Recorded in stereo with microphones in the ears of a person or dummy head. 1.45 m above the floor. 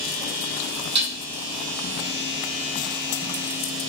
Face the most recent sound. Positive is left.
turn(degrees=-40)  # may be behind; listen again after turning